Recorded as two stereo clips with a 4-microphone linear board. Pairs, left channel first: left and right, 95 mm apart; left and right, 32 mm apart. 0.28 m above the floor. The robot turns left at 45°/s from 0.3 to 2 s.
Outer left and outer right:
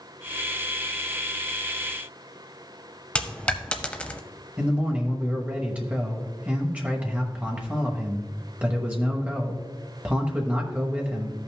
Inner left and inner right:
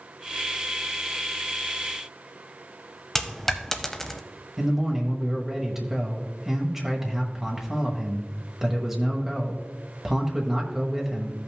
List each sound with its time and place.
3.1 s a dropped coin: 10° left (ahead or behind), 0.7 m
4.6 s a man speaking: 15° right (ahead or behind), 1.0 m